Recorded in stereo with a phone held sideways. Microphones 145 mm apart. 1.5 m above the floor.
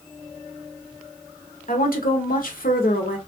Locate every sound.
1.7 s a woman speaking: 80° left, 0.8 m